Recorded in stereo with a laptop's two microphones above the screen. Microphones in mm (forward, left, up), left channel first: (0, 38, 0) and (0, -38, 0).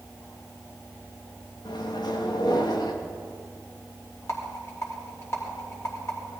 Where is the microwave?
80° left, 0.9 m.